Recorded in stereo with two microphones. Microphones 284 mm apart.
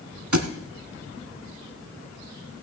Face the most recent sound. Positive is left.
turn(degrees=-80)